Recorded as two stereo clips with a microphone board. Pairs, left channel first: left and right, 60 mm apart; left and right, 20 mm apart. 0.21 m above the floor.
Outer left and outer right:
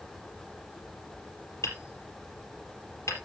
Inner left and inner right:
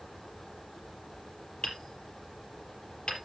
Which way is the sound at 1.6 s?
55° left (ahead or behind).